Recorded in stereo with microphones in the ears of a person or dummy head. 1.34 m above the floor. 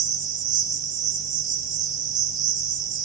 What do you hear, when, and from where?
0.0 s an insect: 25° right (ahead or behind), 2.5 m